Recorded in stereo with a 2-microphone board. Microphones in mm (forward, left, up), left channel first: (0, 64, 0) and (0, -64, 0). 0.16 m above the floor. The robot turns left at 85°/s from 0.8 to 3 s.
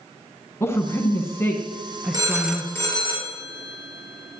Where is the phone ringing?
30° right (ahead or behind), 1.7 m; by 4.4 s 35° left (ahead or behind), 1.7 m.